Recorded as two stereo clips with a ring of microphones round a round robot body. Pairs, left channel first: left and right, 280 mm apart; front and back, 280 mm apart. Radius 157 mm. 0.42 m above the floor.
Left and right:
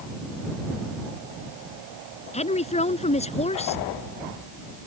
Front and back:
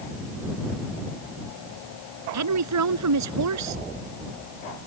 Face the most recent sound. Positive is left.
turn(degrees=155)